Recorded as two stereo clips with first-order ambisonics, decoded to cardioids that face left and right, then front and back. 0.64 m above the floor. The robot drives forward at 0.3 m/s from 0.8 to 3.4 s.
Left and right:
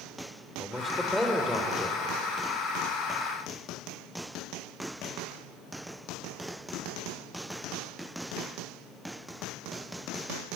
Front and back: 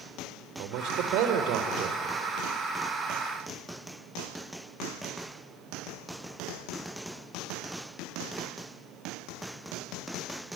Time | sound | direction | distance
0.6 | a man speaking | 175° left | 2.5 m